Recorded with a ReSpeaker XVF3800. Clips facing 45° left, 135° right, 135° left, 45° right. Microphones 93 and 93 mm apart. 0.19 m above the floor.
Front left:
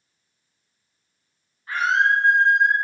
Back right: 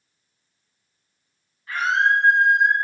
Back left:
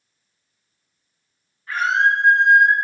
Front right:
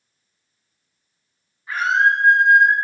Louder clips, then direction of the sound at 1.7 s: Even, front right 1 dB; 15° left.